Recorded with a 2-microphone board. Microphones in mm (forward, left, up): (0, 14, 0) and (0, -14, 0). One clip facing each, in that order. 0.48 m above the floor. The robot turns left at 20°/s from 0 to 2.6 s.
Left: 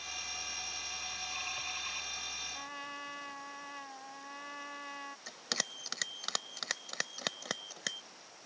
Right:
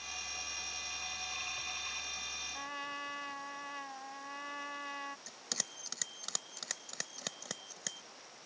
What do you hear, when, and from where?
2.5 s a trumpet: 10° right (ahead or behind)
5.3 s a bell: 30° left (ahead or behind)